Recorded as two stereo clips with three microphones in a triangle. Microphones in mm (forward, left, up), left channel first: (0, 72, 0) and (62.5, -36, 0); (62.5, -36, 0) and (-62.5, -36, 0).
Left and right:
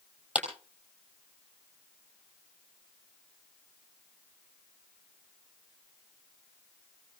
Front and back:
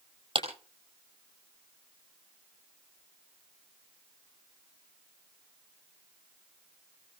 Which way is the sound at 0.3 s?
140° right.